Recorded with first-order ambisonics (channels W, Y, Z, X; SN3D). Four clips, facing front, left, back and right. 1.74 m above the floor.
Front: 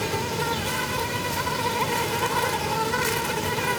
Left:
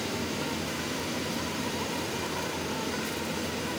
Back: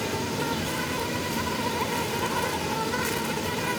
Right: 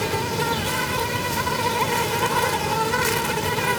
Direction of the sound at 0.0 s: 70° right.